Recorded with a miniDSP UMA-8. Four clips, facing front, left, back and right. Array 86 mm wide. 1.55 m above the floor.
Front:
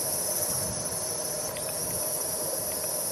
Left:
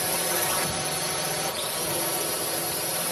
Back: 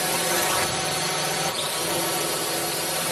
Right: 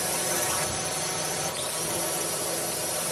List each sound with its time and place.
0.0 s a drone: 170° left